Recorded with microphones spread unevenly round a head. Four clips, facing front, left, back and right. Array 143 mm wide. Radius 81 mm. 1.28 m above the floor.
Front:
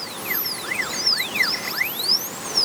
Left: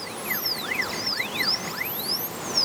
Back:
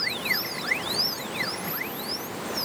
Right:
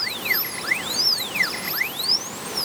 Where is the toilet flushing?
No toilet flushing in this recording.